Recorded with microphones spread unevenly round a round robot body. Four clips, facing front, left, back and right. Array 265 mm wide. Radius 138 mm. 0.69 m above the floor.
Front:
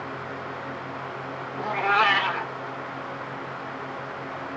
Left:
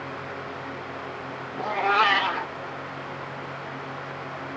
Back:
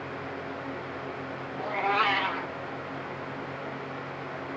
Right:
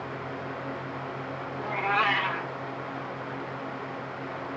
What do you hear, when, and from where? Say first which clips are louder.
1.6 s a cat meowing: left 5 dB, front 4 dB; 45° left, 1.1 m